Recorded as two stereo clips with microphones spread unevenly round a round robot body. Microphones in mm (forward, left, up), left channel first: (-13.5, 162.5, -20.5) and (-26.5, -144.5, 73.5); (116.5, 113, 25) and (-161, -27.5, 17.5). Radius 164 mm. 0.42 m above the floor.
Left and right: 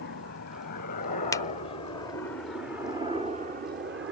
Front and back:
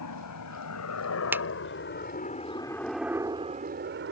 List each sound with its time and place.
0.0 s a helicopter: 45° left; by 4.1 s 145° right
1.3 s a finger snap: 130° left